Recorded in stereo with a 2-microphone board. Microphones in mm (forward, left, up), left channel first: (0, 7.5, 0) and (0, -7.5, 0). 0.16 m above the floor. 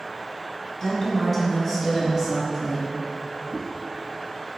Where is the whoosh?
45° right (ahead or behind), 0.7 m.